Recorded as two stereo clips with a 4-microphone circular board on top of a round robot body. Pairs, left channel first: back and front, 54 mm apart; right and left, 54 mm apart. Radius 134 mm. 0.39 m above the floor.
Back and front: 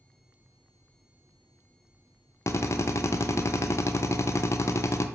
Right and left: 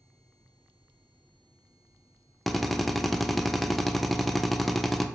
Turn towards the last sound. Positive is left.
turn(degrees=180)